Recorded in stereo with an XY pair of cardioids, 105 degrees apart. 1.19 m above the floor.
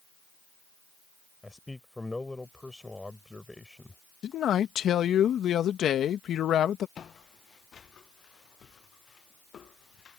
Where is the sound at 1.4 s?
10° left.